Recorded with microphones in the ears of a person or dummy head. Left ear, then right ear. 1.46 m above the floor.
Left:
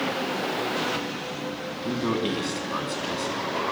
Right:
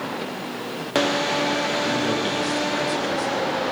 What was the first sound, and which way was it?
A man speaking, 5° right (ahead or behind).